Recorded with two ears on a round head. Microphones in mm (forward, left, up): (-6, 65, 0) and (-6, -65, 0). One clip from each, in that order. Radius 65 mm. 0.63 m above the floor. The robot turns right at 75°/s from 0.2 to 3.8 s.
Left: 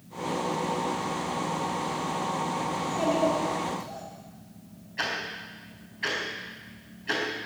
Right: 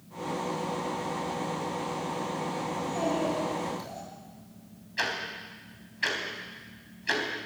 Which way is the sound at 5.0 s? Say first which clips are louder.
Even; 70° right (ahead or behind).